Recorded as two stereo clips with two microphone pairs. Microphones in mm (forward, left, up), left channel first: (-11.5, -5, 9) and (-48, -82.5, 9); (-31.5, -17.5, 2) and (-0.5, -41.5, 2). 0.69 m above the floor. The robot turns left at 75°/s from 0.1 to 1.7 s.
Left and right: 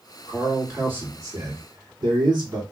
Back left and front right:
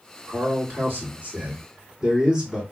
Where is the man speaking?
25° right, 2.0 m; by 2.6 s 135° right, 2.0 m.